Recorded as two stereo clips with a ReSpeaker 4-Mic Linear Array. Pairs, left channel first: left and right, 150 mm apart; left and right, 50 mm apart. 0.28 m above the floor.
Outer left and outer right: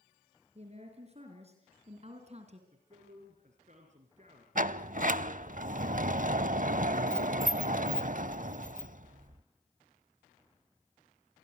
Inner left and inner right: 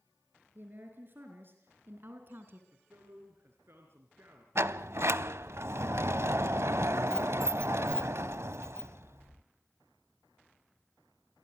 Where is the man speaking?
50° right (ahead or behind), 3.5 m.